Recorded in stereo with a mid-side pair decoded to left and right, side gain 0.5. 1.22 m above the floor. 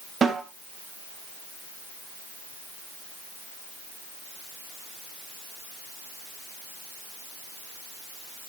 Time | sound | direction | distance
0.2 | a snare drum | 40° right | 8.5 m